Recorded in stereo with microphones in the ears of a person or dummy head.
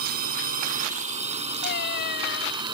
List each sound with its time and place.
0.0 s a drone: 50° right (ahead or behind); by 2.7 s 25° right (ahead or behind)
1.6 s a cat meowing: 65° left (ahead or behind)